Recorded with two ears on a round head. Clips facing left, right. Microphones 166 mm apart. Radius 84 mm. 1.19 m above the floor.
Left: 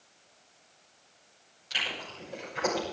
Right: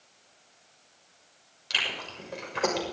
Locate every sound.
1.7 s chewing: 80° right, 6.5 m